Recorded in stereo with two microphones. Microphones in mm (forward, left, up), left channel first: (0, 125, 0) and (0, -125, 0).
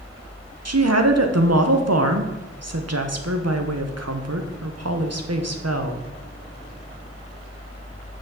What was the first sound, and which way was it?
A woman speaking, 70° right (ahead or behind).